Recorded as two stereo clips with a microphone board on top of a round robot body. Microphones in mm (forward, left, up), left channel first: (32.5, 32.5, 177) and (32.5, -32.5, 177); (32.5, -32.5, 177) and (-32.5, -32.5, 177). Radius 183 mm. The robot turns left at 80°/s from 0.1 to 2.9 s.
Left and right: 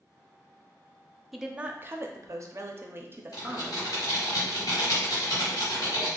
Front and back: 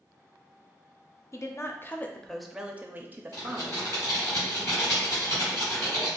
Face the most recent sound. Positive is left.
turn(degrees=60)